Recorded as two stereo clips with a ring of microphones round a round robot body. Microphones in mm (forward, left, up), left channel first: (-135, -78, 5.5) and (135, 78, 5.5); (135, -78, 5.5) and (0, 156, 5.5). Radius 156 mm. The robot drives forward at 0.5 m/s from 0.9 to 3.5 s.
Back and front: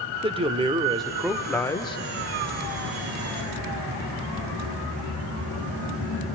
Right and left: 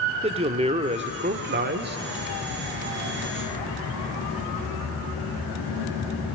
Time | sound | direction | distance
0.2 | a man speaking | 80° left | 0.8 m